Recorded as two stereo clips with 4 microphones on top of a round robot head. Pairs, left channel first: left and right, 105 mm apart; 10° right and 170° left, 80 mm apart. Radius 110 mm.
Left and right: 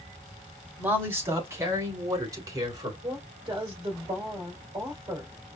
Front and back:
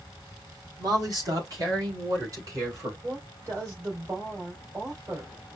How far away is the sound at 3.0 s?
About 3 m.